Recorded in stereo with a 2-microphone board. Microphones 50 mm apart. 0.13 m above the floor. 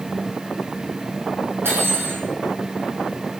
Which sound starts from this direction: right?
Cutlery clinking, at 1.6 s.